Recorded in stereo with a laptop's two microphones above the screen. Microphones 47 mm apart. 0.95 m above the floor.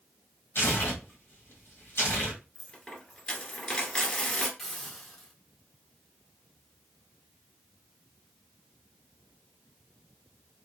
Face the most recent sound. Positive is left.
turn(degrees=10)  # may be behind; listen again after turning